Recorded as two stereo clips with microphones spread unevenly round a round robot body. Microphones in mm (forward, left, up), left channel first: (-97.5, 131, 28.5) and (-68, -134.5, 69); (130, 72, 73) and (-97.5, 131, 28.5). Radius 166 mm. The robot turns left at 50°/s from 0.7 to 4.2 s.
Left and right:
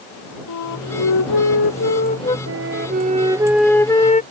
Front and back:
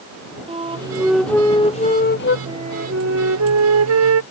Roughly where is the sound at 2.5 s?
Behind right.